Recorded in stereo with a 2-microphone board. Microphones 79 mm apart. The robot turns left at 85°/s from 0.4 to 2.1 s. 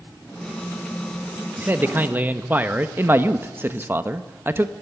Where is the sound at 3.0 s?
25° right (ahead or behind), 0.8 m.